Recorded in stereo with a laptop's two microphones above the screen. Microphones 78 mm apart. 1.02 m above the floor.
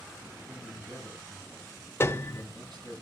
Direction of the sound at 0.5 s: 70° right (ahead or behind).